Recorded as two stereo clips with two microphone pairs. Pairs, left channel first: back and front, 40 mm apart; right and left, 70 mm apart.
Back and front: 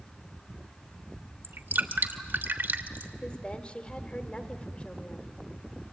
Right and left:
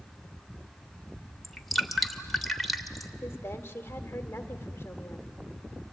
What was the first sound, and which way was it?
Dripping, straight ahead.